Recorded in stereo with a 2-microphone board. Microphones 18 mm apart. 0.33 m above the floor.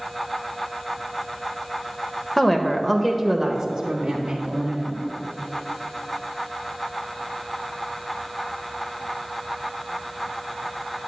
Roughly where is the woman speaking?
Centre.